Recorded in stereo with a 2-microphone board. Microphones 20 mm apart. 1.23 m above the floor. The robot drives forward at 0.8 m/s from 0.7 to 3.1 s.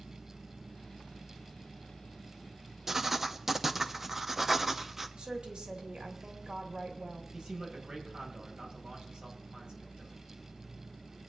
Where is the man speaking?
50° right (ahead or behind), 5.5 m.